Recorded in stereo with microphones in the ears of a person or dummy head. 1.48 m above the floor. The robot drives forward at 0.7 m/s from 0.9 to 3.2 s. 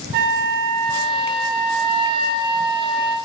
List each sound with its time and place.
0.1 s a flute: 60° right (ahead or behind), 1.4 m; by 3.1 s 30° right (ahead or behind), 2.5 m